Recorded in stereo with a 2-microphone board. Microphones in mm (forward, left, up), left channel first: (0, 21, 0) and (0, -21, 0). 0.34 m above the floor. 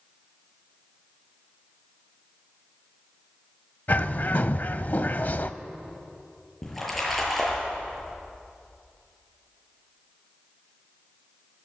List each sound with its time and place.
3.9 s a bird: 45° left (ahead or behind), 0.8 m
6.6 s a splash: 5° left (ahead or behind), 7 m